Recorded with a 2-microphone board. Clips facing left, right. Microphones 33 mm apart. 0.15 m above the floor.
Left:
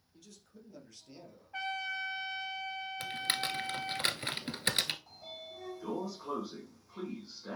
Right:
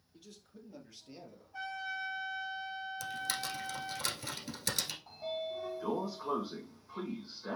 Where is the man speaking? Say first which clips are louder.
Right 2 dB; 15° right (ahead or behind), 3.5 m; by 1.4 s 10° right (ahead or behind), 2.5 m.